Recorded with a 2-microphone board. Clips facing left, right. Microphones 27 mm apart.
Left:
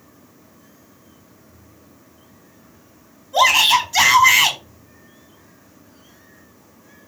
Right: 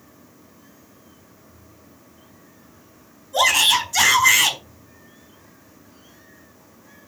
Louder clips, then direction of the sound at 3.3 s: Left 3 dB; 25° left (ahead or behind).